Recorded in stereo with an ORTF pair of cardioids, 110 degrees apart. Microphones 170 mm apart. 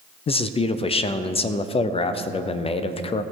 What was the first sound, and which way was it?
A man speaking, 35° left.